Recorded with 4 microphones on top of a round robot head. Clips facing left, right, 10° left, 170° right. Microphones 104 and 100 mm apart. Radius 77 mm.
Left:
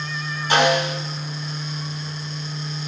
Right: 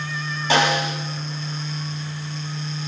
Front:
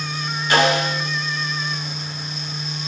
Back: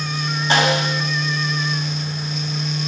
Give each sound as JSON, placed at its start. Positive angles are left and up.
{"t": 0.5, "sound": "a snare drum", "azimuth_deg": -100, "distance_m": 6.0}